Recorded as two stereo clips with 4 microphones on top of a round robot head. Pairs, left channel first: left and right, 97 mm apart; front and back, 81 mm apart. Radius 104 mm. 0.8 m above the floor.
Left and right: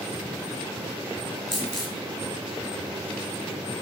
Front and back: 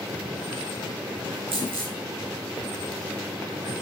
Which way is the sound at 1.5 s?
175° left.